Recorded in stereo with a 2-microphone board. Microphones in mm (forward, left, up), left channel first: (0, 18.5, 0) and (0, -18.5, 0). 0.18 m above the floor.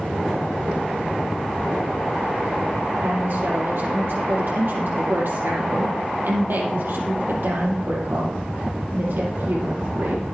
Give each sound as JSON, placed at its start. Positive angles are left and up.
{"t": 3.0, "sound": "a woman speaking", "side_deg": -65, "distance_m": 6.0}